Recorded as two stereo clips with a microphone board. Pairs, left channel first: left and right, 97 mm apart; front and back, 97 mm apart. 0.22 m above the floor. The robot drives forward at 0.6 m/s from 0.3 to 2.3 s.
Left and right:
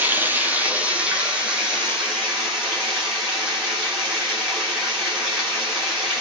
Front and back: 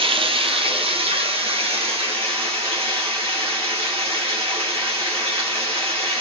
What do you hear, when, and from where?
0.0 s running water: 160° right, 0.9 m; by 6.2 s 170° right, 2 m